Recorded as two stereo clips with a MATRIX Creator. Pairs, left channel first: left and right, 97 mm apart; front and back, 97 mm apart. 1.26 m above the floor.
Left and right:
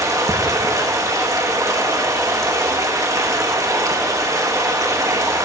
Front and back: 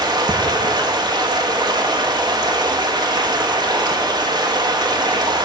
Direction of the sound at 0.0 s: 140° right.